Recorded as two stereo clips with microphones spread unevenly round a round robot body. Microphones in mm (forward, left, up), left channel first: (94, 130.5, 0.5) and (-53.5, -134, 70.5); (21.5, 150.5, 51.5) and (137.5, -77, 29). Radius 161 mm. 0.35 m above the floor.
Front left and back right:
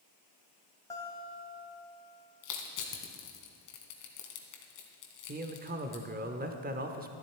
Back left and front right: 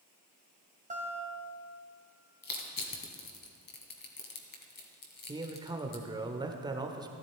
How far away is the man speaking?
About 0.9 m.